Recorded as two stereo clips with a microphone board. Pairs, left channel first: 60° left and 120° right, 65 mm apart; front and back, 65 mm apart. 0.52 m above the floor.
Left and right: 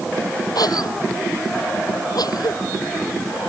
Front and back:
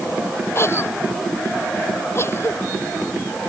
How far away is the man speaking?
I don't hear a man speaking.